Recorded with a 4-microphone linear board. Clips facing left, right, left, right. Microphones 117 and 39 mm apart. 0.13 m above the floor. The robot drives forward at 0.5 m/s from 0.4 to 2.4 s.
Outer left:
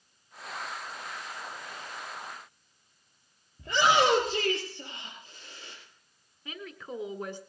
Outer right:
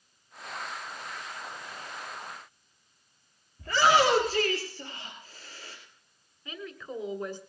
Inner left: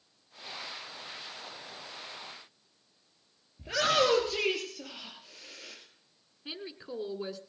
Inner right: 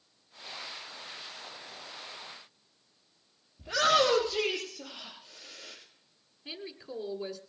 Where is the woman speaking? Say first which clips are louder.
Outer right 1 dB, inner left 1 dB; 20° left (ahead or behind), 1.1 m.